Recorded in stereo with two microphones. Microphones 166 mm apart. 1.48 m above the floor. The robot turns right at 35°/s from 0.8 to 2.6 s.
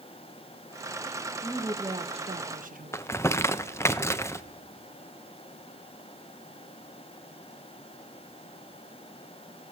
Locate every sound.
1.4 s a woman speaking: 165° right, 1.4 m; by 3.0 s 125° right, 1.4 m
2.9 s crumpling: 15° left (ahead or behind), 0.8 m